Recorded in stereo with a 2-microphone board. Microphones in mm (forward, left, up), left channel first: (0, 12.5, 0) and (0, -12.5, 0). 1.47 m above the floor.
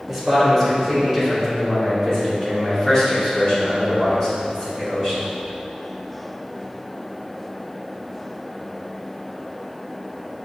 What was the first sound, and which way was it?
A man speaking, centre (ahead or behind).